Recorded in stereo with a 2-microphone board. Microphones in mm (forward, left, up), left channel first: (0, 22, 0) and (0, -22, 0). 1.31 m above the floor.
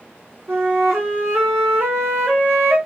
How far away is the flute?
About 1.1 m.